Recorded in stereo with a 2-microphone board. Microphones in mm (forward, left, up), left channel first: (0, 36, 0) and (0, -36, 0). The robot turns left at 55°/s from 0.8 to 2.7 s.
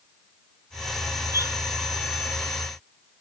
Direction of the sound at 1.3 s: 45° right (ahead or behind).